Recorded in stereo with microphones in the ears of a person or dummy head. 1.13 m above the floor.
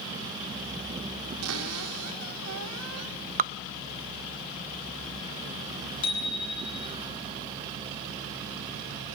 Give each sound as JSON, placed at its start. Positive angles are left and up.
{"t": 1.4, "sound": "a cupboard door", "side_deg": -85, "distance_m": 3.0}
{"t": 3.4, "sound": "dripping", "side_deg": -35, "distance_m": 0.6}
{"t": 6.0, "sound": "a bicycle bell", "side_deg": 25, "distance_m": 5.5}